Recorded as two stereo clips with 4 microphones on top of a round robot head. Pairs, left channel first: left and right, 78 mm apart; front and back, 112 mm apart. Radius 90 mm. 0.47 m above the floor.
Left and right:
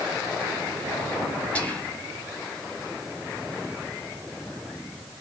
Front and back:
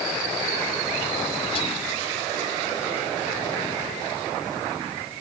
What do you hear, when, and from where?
1.6 s whispering: 20° left, 1.4 m